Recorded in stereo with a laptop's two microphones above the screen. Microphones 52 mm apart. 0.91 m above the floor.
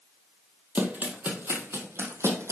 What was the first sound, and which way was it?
Running footsteps, 30° right (ahead or behind).